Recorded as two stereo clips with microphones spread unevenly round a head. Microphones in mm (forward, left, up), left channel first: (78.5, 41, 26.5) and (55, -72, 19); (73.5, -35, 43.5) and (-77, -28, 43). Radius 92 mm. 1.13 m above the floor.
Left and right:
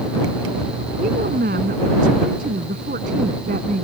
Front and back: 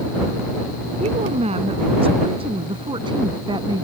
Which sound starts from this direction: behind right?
A woman speaking, at 1.0 s.